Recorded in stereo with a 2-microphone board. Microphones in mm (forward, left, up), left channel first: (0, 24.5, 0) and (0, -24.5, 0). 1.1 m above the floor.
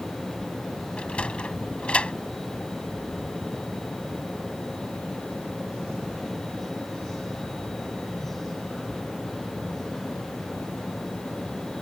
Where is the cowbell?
I don't hear a cowbell.